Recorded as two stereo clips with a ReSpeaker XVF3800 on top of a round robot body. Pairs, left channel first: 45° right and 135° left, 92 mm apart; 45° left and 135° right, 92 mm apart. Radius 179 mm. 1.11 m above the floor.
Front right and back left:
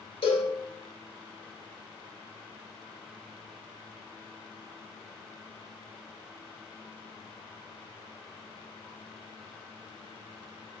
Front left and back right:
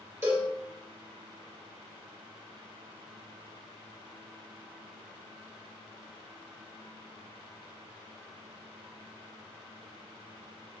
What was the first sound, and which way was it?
A cowbell, 70° right.